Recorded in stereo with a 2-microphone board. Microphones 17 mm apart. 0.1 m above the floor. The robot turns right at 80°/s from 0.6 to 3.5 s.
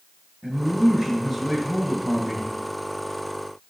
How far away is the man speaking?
About 4 m.